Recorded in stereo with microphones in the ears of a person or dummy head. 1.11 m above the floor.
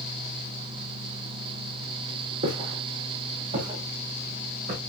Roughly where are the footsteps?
Right.